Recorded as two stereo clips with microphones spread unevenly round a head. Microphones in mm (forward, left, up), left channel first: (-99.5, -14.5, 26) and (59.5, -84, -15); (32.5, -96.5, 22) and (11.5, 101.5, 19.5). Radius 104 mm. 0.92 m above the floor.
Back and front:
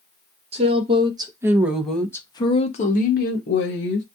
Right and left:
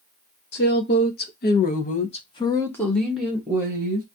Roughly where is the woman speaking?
Ahead right.